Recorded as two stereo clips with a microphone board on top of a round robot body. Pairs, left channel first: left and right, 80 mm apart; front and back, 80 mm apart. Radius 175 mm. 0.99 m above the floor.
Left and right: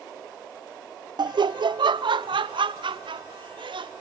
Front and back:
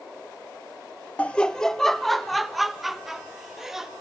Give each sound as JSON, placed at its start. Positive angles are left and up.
{"t": 1.2, "sound": "laughter", "azimuth_deg": -70, "distance_m": 0.5}